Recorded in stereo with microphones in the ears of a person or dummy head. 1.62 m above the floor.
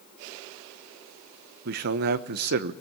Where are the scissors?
No scissors in this recording.